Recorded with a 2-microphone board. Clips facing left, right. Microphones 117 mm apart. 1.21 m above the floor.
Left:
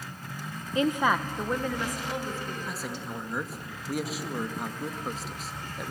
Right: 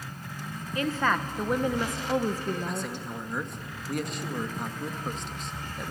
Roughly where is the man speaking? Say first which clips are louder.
Right 2 dB; centre.